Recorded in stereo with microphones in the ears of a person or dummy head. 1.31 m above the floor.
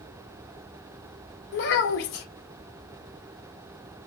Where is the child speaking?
60° left (ahead or behind), 1.0 m.